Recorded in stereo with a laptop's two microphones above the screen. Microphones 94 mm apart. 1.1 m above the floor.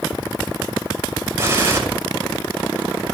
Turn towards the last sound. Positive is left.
turn(degrees=-25)  # may be behind; listen again after turning